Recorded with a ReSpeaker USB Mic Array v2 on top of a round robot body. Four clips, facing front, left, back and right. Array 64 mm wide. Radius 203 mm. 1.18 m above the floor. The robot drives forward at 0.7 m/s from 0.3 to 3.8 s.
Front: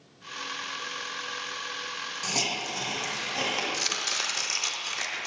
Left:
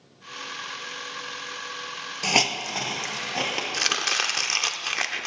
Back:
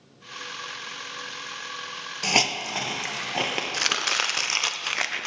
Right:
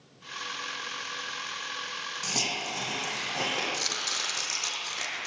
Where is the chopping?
140° left, 0.5 m; by 5.3 s 145° left, 0.5 m.